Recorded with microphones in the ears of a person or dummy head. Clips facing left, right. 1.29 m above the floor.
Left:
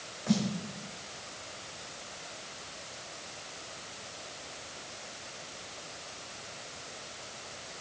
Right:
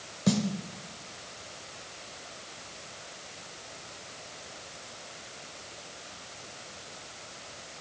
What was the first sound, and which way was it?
A snare drum, 50° right (ahead or behind).